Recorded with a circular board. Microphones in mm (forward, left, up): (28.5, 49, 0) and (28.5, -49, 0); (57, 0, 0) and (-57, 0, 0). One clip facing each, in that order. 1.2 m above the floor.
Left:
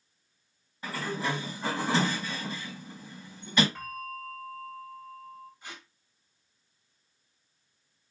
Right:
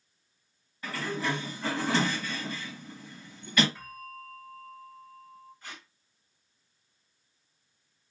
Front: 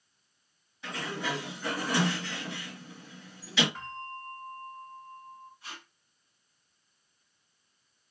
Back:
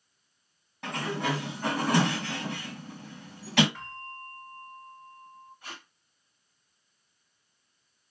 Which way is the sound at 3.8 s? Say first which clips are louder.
Left 5 dB, front 2 dB; 75° left.